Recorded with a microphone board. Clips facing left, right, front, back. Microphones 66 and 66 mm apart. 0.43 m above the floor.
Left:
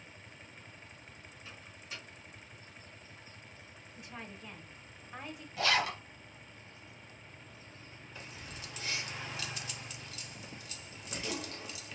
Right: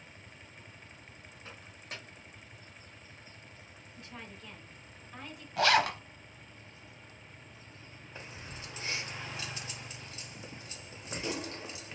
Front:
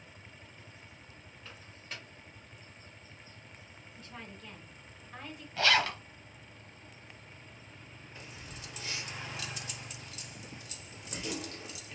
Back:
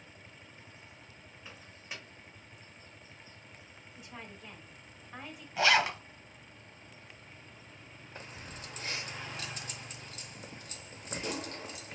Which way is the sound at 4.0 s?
125° left.